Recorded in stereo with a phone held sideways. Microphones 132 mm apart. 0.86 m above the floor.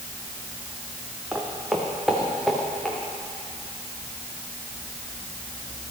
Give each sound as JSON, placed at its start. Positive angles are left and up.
{"t": 1.3, "sound": "footsteps", "side_deg": -5, "distance_m": 3.0}